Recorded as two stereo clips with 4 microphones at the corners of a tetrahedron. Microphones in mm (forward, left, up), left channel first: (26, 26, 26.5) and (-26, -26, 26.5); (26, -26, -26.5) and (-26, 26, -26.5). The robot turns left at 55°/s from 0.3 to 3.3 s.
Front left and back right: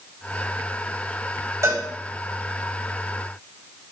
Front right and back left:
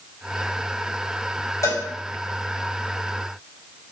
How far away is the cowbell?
About 3.5 m.